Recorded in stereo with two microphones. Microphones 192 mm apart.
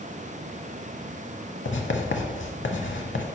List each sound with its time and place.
1.6 s writing: 75° left (ahead or behind), 0.8 m